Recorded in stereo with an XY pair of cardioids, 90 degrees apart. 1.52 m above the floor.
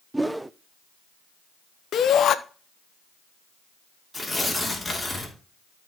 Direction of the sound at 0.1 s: 15° right.